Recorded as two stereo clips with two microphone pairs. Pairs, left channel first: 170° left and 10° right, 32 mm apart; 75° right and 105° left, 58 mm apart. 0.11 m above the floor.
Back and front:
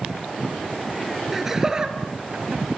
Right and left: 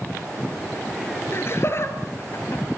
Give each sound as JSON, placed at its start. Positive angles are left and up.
{"t": 1.3, "sound": "laughter", "azimuth_deg": -90, "distance_m": 2.0}